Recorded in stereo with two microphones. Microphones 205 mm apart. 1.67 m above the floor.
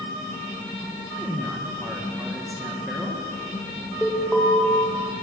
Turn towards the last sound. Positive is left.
turn(degrees=5)  # may be behind; listen again after turning